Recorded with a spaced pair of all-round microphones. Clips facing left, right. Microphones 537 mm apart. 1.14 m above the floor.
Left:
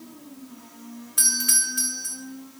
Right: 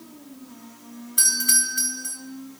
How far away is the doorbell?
About 1.7 m.